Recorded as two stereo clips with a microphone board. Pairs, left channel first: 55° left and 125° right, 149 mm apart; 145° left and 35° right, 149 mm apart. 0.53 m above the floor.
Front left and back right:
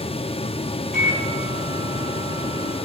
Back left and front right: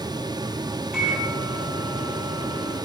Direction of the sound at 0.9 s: 120° right.